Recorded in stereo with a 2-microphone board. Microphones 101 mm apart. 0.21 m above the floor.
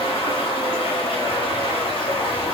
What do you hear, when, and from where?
0.0 s running water: 45° left (ahead or behind), 4.5 m